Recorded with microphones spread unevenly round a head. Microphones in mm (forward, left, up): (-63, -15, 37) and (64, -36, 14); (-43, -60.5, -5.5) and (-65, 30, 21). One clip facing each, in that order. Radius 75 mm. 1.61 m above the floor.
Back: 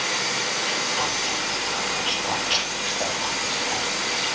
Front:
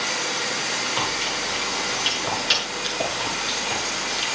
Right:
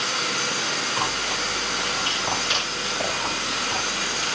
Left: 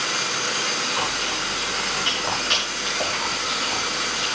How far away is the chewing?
About 6.5 m.